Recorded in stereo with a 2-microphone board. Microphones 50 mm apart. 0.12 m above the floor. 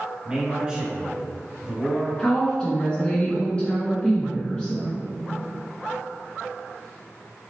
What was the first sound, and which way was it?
A man speaking, 15° right (ahead or behind).